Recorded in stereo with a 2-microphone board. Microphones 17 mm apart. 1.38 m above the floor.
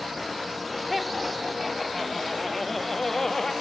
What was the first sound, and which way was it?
Laughter, 10° right (ahead or behind).